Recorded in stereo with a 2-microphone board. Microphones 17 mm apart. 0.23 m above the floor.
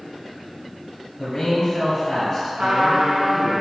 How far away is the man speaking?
About 1.9 m.